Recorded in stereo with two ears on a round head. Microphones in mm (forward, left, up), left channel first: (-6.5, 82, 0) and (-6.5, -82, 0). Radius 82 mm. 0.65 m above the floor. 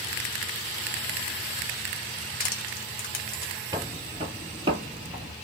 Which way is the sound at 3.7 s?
20° right (ahead or behind).